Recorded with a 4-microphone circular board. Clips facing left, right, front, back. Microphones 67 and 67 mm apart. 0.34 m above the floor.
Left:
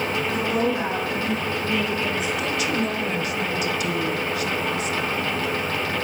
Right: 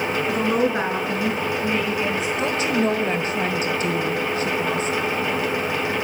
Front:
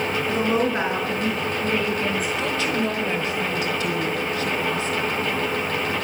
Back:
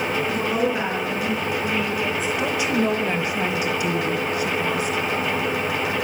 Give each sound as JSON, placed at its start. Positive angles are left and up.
{"t": 0.3, "sound": "a woman speaking", "azimuth_deg": -60, "distance_m": 5.5}
{"t": 2.4, "sound": "a woman speaking", "azimuth_deg": -115, "distance_m": 1.4}